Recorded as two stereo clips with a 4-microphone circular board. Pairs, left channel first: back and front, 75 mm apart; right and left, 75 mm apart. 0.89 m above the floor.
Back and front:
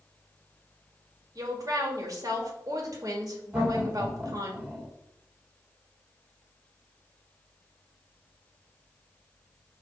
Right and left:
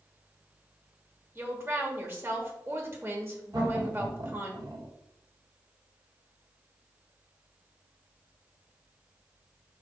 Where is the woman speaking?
35° left, 1.9 m.